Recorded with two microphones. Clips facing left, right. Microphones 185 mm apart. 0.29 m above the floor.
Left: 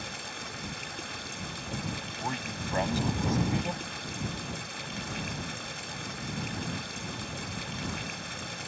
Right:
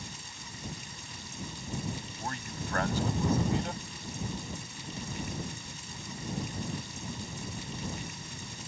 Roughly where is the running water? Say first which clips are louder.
Left 6 dB; left.